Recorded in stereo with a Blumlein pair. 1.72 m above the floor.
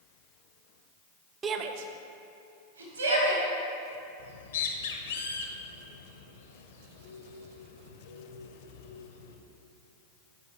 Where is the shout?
20° right, 0.6 m; by 3.5 s 75° right, 2.5 m.